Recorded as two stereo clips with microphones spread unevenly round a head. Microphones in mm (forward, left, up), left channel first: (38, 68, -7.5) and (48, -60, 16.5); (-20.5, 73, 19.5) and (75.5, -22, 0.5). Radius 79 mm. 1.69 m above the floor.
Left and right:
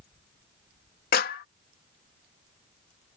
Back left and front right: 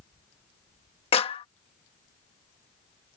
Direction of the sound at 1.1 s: 95° left.